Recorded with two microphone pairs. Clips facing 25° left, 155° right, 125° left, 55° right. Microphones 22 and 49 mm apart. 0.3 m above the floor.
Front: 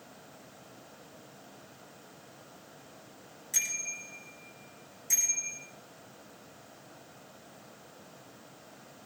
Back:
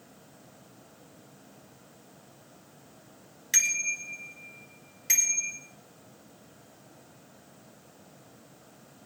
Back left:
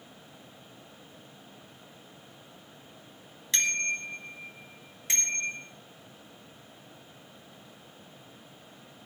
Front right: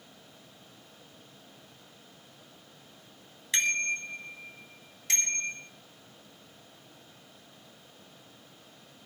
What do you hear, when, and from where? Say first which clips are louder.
3.5 s a bicycle bell: back 7 dB, front right 1 dB; 135° right, 3 m; by 5.6 s 165° right, 4.5 m